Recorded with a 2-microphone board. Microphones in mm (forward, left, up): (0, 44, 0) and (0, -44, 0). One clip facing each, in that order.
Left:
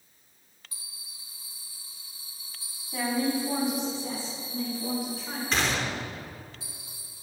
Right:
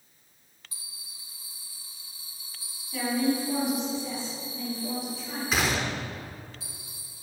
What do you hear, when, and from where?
2.9 s a woman speaking: 25° left (ahead or behind), 3 m; by 5.4 s 50° left (ahead or behind), 5 m
5.5 s a gunshot: 5° right (ahead or behind), 0.9 m